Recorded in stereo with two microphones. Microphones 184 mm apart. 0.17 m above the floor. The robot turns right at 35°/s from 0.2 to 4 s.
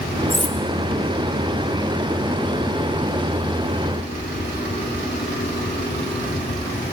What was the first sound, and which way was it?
Cutlery clinking, centre (ahead or behind).